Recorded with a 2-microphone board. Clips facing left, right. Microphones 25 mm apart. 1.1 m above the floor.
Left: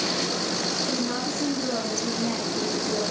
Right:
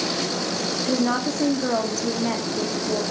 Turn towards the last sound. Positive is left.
turn(degrees=-15)  # may be behind; listen again after turning